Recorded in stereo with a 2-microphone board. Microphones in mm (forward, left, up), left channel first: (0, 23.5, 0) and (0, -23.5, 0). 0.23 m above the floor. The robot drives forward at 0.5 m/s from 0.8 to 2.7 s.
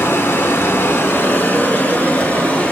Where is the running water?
60° left (ahead or behind), 0.8 m; by 2.7 s 30° left (ahead or behind), 1.4 m.